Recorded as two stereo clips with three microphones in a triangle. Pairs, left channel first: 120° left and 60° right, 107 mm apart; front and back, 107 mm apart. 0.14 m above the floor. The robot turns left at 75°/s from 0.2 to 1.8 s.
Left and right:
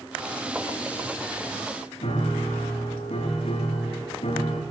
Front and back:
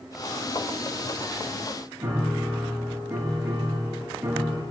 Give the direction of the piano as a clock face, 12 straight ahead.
8 o'clock.